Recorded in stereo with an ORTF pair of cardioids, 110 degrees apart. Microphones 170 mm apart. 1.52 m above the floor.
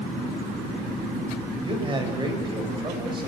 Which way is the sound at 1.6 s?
30° right.